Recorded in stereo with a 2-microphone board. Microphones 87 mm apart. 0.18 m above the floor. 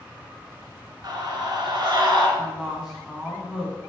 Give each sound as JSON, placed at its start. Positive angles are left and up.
{"t": 1.0, "sound": "a scream", "side_deg": -50, "distance_m": 1.9}
{"t": 2.4, "sound": "a woman speaking", "side_deg": -10, "distance_m": 1.6}